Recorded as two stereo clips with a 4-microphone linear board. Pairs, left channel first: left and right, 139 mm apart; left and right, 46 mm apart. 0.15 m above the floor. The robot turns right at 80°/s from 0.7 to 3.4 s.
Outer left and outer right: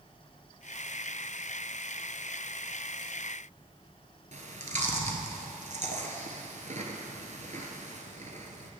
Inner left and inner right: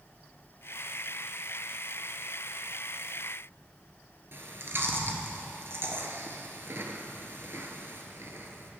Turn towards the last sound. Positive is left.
turn(degrees=-60)  # may be behind; listen again after turning